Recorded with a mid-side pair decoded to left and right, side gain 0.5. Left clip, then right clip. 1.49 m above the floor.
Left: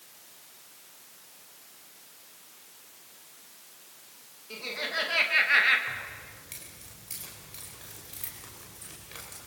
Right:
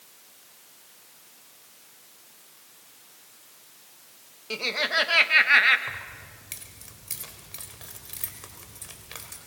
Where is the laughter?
65° right, 1.9 m; by 5.8 s 30° right, 1.8 m.